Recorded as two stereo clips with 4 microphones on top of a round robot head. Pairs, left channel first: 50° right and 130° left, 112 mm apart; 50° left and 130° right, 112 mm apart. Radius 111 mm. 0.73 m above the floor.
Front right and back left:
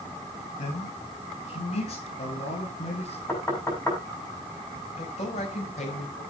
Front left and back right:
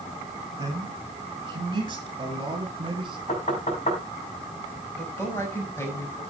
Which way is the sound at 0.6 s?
75° right.